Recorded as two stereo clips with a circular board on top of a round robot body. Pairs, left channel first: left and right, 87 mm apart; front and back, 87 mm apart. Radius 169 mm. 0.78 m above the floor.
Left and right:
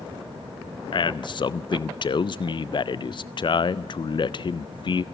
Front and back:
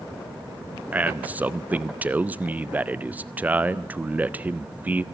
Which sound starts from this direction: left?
A man speaking, at 0.9 s.